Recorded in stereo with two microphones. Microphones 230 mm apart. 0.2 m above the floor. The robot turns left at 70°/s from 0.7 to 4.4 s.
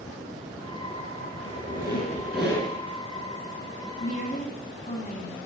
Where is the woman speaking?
35° left (ahead or behind), 1.1 m.